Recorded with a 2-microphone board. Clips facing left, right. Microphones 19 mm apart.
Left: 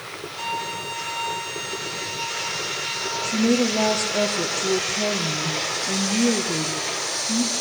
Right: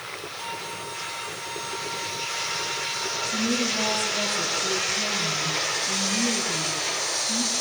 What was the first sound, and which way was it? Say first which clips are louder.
A violin: left 8 dB; 55° left (ahead or behind).